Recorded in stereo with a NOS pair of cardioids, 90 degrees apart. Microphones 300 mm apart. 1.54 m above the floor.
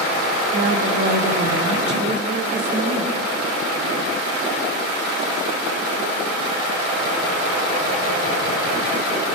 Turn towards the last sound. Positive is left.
turn(degrees=-35)